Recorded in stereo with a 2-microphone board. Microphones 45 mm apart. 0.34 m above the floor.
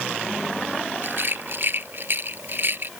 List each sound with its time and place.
1.0 s a rattle: 50° right (ahead or behind)